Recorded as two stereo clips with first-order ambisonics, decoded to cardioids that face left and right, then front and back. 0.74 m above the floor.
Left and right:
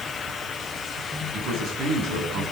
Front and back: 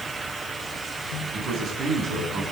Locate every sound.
1.3 s a man speaking: 125° right, 5.5 m